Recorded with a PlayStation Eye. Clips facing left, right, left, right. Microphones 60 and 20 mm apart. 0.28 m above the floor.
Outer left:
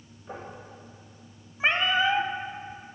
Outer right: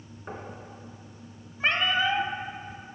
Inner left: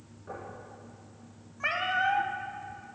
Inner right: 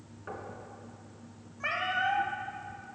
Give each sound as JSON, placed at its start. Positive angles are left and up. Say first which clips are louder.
{"t": 0.3, "sound": "knocking", "louder": "outer right 1 dB, even", "side_deg": -55, "distance_m": 3.0}
{"t": 1.6, "sound": "a cat meowing", "louder": "outer left 1 dB, inner left 2 dB", "side_deg": 15, "distance_m": 0.8}